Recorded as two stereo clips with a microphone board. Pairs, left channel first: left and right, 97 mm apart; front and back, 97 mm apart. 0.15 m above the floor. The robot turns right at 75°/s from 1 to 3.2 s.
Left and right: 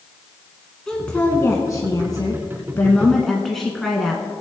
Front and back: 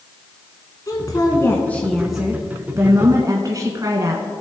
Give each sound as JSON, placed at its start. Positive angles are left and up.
{"t": 0.9, "sound": "a woman speaking", "azimuth_deg": 10, "distance_m": 1.2}